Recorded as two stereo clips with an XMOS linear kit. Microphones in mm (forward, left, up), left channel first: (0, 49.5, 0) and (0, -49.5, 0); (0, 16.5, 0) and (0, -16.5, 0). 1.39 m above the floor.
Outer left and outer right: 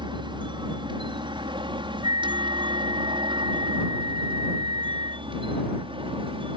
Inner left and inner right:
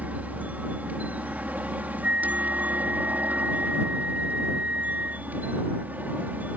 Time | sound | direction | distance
0.0 | a helicopter | 50° right (ahead or behind) | ?
2.0 | a flute | 45° right (ahead or behind) | ?